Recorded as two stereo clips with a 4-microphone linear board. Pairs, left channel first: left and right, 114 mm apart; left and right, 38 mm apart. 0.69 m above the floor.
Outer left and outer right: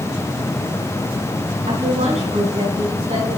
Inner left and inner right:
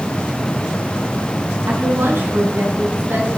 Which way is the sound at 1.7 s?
80° right.